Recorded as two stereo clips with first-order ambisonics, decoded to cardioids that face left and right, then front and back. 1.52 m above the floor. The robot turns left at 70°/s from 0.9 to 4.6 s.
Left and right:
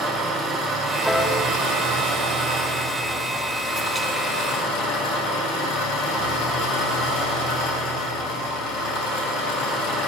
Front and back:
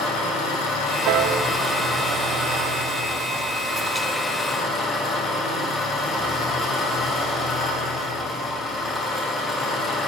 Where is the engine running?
30° right, 3 m; by 10.1 s 70° left, 3 m.